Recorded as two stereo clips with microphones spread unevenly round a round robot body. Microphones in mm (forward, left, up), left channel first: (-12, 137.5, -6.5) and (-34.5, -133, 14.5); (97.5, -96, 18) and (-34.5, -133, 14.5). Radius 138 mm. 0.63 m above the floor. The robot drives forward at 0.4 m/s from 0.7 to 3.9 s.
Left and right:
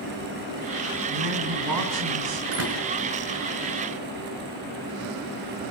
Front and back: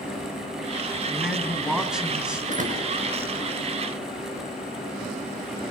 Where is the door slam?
135° right, 5.5 m.